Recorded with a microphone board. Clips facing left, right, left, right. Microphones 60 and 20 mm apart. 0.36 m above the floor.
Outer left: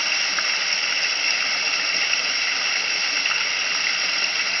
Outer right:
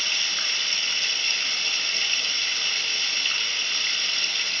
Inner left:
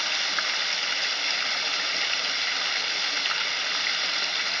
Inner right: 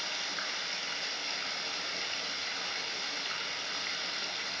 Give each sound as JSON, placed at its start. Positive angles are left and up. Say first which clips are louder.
{"t": 0.0, "sound": "running water", "louder": "outer left 5 dB, inner left 9 dB", "side_deg": 50, "distance_m": 1.0}